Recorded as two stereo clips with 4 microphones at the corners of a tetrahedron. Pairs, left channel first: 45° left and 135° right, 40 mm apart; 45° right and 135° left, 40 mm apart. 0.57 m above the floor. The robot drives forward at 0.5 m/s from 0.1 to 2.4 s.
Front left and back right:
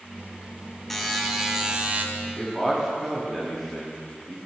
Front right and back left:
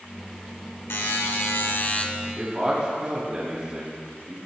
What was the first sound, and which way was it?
A buzzer, 40° right.